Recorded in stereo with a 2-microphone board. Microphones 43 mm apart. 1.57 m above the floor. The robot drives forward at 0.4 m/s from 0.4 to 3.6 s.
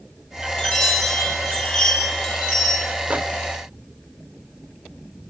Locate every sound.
0.6 s a chime: 5° left (ahead or behind), 4 m
3.1 s a microwave: 35° right (ahead or behind), 0.6 m; by 3.2 s 40° right (ahead or behind), 0.6 m